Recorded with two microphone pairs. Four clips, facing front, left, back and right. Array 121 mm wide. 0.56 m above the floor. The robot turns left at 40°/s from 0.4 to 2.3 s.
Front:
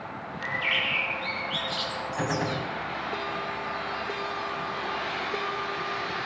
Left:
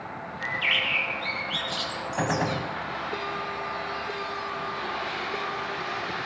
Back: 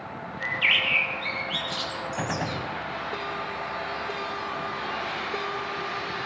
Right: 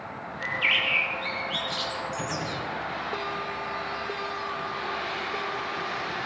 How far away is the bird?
About 7 m.